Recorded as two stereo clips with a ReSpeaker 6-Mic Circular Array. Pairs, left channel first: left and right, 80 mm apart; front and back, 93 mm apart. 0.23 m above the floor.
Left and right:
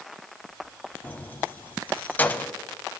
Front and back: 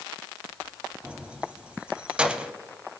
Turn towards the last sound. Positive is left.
turn(degrees=120)